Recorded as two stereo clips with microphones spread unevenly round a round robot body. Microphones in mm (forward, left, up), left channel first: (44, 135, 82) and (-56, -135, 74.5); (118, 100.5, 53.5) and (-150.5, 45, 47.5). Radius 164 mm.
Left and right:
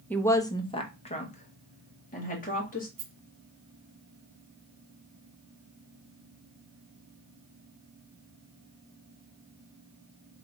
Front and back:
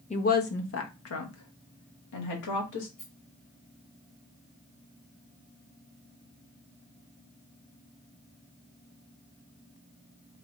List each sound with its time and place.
0.1 s a woman speaking: 10° right, 0.7 m; by 2.9 s 10° left, 2 m
3.0 s a rattle: 60° right, 0.5 m